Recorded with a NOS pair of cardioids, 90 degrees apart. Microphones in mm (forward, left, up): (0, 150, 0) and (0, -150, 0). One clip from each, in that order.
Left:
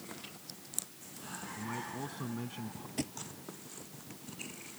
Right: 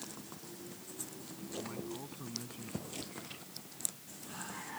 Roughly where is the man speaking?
Ahead left.